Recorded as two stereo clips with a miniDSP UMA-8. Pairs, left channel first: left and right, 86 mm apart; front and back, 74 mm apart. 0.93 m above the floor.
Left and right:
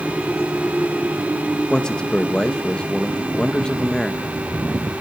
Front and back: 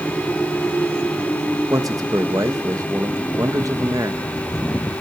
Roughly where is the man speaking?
Behind.